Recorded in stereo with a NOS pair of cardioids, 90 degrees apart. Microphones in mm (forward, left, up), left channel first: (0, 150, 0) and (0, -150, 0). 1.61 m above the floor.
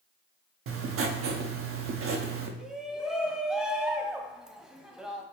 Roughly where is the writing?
Ahead right.